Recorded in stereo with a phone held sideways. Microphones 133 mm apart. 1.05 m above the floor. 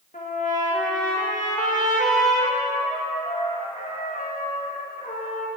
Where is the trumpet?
70° left (ahead or behind), 1.3 m.